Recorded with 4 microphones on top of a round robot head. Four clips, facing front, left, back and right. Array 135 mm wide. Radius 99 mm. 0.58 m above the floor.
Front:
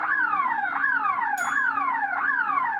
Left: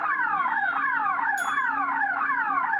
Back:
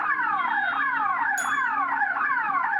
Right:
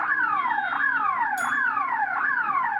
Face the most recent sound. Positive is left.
turn(degrees=-135)